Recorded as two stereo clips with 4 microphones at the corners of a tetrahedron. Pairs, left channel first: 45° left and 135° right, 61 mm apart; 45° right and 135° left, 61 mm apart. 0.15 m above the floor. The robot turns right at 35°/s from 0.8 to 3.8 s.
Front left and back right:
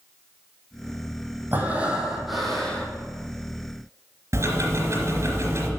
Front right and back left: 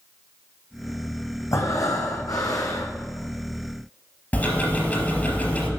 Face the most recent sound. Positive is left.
turn(degrees=-110)